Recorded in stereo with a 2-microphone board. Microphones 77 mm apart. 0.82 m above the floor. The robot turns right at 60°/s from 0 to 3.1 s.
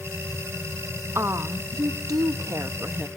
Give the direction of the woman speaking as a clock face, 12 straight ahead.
5 o'clock.